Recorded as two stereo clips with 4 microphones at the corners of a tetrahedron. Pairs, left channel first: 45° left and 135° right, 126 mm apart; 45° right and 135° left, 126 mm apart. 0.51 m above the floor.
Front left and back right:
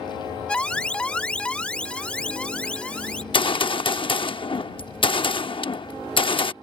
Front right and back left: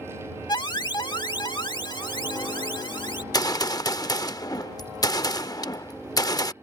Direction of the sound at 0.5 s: 30° right.